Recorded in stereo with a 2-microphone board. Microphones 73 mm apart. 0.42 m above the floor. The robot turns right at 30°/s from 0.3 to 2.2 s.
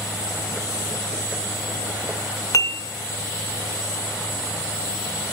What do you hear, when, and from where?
2.5 s dishes clattering: 50° left (ahead or behind), 0.8 m